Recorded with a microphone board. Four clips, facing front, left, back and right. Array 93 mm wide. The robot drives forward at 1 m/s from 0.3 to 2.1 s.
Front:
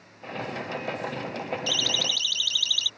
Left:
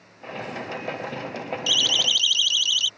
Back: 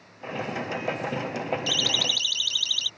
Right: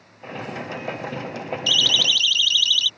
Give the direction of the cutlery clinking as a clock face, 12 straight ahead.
No cutlery clinking in this recording.